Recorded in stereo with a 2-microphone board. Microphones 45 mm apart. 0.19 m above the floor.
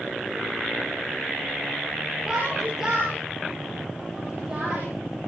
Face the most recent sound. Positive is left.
turn(degrees=-15)  # may be behind; listen again after turning